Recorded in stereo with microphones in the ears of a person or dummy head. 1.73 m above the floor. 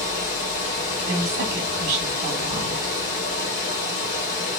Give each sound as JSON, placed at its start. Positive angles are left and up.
{"t": 0.0, "sound": "running water", "side_deg": 55, "distance_m": 1.4}
{"t": 1.1, "sound": "a woman speaking", "side_deg": -45, "distance_m": 0.8}